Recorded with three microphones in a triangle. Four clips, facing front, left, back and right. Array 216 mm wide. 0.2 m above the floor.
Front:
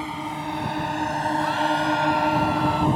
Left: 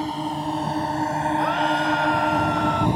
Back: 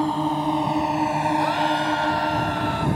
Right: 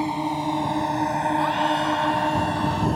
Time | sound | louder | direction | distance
0.0 | a drone | right 2 dB, back 7 dB | 165° right | ?
1.4 | a scream | left 1 dB, back 1 dB | 130° left | ?